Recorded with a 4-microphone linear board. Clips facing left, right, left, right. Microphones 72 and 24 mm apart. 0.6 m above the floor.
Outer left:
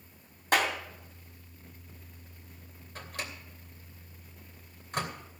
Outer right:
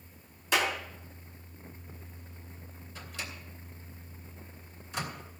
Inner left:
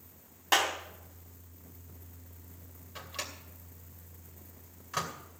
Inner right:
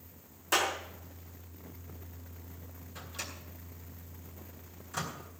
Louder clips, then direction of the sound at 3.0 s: Outer left 2 dB, inner left 2 dB; 50° left (ahead or behind).